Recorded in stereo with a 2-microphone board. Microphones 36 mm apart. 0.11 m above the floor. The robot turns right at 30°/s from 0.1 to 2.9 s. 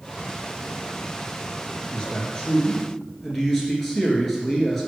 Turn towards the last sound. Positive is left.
turn(degrees=5)  # may be behind; listen again after turning